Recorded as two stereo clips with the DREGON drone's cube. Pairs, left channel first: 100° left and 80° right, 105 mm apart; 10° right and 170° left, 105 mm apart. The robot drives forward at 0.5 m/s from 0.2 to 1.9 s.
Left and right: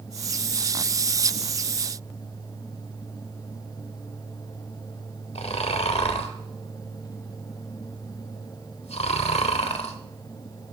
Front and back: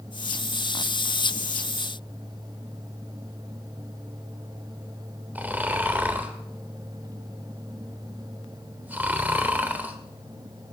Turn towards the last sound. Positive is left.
turn(degrees=95)